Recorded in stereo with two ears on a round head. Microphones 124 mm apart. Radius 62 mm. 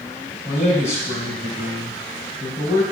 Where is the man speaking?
50° left (ahead or behind), 2.5 m.